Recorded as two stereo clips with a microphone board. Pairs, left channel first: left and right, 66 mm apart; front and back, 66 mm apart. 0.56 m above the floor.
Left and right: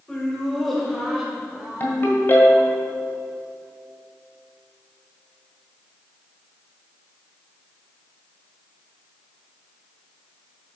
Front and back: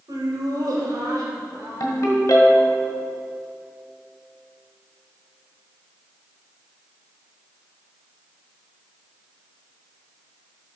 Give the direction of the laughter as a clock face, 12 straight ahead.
7 o'clock.